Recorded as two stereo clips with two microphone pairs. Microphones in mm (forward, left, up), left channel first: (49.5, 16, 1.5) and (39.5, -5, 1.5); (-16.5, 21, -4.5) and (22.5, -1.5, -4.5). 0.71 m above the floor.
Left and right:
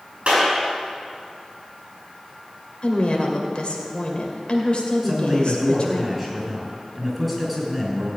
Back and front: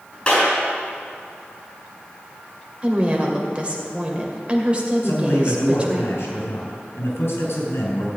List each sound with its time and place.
0.3 s a clap: 145° right, 5.5 m
2.8 s a woman speaking: 30° left, 2.5 m
5.0 s a man speaking: 160° left, 5 m